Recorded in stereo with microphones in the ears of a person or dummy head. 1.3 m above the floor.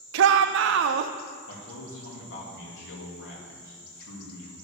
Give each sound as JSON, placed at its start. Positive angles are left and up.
{"t": 0.1, "sound": "a shout", "side_deg": -65, "distance_m": 0.6}
{"t": 1.5, "sound": "a man speaking", "side_deg": 60, "distance_m": 2.5}